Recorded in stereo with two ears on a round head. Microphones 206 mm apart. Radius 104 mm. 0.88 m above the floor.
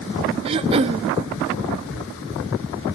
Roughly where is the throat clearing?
Right.